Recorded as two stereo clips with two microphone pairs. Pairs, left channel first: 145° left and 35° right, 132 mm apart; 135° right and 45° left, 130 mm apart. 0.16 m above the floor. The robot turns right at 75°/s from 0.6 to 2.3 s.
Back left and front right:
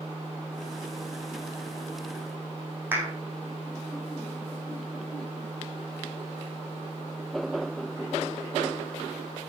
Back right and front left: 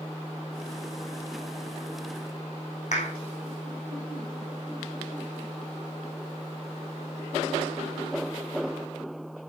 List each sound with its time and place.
2.9 s a clap: 110° right, 5.5 m